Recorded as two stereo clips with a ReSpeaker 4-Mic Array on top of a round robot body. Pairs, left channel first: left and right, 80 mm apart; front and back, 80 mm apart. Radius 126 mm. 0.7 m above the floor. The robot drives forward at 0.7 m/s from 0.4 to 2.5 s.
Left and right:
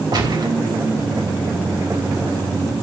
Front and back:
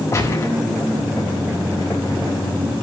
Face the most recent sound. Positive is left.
turn(degrees=-70)